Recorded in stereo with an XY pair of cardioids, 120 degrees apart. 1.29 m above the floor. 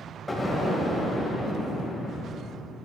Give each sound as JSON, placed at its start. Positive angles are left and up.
{"t": 0.3, "sound": "an explosion", "azimuth_deg": 10, "distance_m": 3.0}